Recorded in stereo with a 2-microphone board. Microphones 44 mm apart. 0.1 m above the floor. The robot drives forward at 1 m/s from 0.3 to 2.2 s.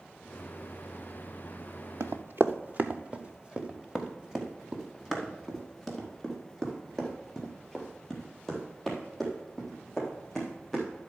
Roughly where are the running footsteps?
Right.